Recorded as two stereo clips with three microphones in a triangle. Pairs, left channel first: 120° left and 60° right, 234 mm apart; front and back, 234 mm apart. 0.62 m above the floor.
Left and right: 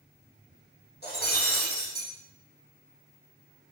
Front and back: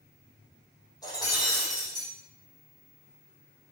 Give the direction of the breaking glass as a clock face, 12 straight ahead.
10 o'clock.